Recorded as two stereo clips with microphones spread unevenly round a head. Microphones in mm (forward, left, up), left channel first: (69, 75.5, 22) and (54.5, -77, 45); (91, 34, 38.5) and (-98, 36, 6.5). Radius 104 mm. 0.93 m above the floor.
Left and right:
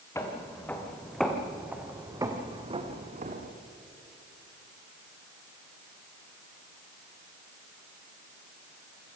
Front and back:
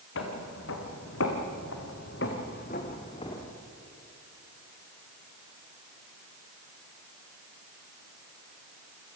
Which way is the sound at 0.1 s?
10° left.